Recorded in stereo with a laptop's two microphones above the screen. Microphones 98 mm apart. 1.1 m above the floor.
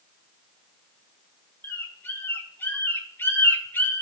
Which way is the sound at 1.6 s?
25° left (ahead or behind).